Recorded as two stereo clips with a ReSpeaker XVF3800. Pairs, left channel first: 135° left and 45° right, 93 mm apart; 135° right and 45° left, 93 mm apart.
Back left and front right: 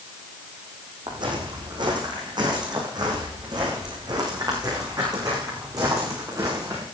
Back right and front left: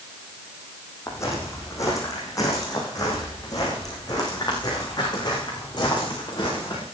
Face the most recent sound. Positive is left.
turn(degrees=-95)